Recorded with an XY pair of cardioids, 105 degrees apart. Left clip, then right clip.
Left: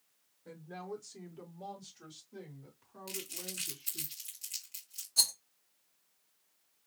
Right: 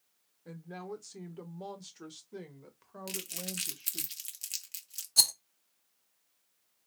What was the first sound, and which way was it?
A woman speaking, 20° right.